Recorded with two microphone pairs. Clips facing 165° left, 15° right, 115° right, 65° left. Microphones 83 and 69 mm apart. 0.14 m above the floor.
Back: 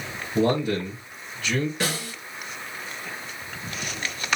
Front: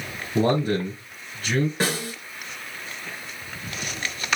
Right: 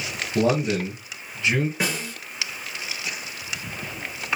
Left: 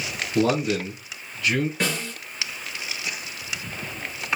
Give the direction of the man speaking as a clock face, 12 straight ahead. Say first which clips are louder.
Front 1 dB, even; 2 o'clock.